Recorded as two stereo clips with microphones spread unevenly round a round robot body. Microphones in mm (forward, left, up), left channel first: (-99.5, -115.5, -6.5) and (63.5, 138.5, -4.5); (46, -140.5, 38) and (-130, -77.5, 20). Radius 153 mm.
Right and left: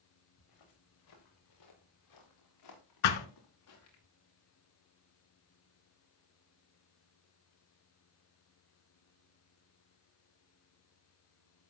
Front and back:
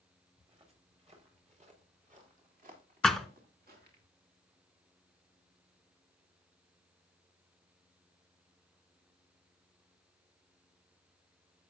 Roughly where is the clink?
I don't hear a clink.